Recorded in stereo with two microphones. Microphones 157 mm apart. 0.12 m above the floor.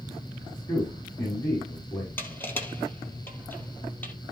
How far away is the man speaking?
About 6 m.